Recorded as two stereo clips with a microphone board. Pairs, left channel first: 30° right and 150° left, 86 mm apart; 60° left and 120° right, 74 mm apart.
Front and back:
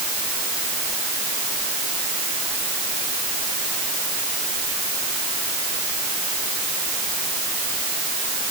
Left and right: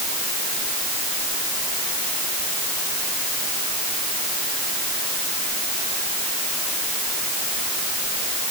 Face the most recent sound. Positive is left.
No sound to turn to.